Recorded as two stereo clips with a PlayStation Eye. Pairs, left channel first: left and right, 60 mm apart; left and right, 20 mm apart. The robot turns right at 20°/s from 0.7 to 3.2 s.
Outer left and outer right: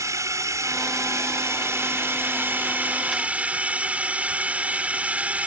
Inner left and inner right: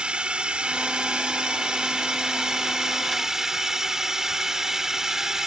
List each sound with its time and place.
0.0 s a drone: 75° right; by 5.5 s 25° right